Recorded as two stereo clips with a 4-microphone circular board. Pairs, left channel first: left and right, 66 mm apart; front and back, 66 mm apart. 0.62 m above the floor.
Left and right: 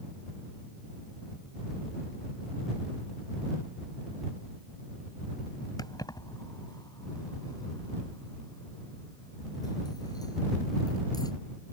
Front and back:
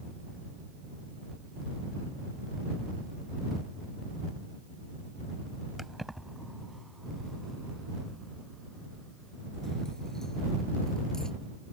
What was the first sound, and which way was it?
Keys jangling, 90° left.